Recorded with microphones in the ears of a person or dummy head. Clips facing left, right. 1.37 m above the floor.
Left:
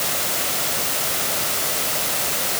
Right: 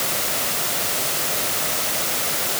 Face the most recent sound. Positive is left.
No sound to turn to.